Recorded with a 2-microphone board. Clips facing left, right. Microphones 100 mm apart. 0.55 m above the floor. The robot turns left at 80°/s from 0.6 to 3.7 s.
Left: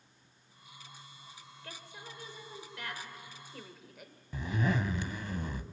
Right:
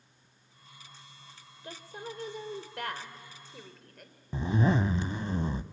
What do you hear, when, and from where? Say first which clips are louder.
1.6 s a woman speaking: right 8 dB; 20° right, 1.7 m; by 4.2 s 175° left, 1.7 m
4.3 s a zipper: right 5 dB; 30° right (ahead or behind), 0.5 m